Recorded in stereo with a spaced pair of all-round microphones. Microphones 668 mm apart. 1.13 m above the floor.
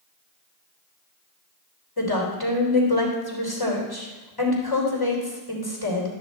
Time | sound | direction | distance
2.0 | a woman speaking | 35° left (ahead or behind) | 3 m